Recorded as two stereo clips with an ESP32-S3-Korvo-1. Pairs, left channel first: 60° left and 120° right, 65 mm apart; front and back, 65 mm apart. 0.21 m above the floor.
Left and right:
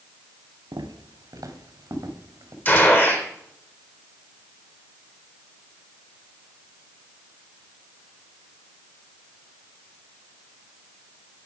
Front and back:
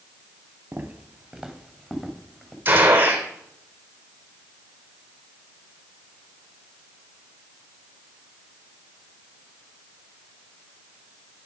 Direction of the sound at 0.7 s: 115° right.